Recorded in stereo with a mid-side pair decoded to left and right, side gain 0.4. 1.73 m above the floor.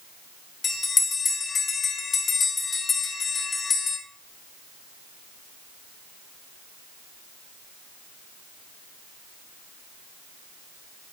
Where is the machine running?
No machine running in this recording.